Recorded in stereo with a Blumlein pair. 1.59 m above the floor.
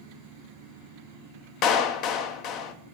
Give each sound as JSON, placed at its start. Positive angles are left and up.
{"t": 1.6, "sound": "a clap", "azimuth_deg": 35, "distance_m": 0.7}